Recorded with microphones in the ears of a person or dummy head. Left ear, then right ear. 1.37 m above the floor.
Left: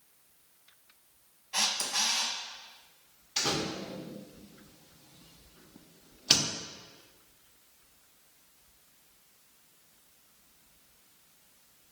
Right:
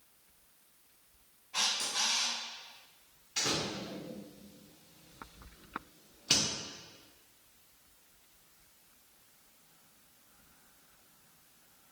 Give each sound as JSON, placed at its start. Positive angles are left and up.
{"t": 1.5, "sound": "a camera shutter", "side_deg": 65, "distance_m": 1.0}
{"t": 3.4, "sound": "a door slam", "side_deg": 20, "distance_m": 0.6}